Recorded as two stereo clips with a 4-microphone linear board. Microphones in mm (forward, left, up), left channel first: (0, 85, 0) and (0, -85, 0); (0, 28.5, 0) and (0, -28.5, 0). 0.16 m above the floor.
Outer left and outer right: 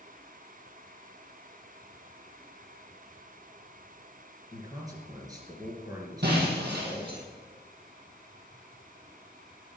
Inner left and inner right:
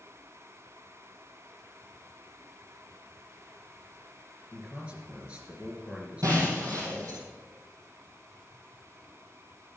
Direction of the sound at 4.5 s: 20° right (ahead or behind).